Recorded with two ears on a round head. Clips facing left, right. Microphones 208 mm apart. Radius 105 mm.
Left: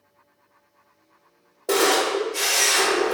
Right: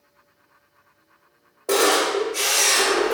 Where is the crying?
I don't hear crying.